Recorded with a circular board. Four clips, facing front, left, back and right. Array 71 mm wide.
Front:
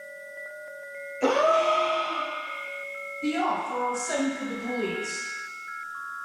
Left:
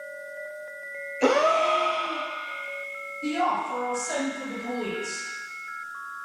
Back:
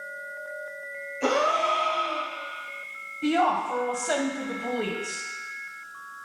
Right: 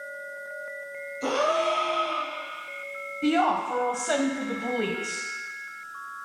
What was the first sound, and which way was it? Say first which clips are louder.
A gasp: left 4 dB, front 2 dB; 85° left.